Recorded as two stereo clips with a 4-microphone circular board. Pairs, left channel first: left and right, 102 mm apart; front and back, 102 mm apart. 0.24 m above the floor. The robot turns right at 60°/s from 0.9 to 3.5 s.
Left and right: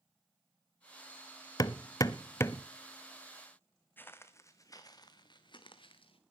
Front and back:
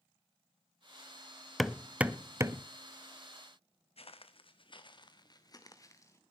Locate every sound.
1.6 s hammering: 85° left, 0.6 m; by 2.6 s 150° left, 0.6 m
4.0 s footsteps: 20° left, 1.3 m; by 6.2 s 60° left, 1.8 m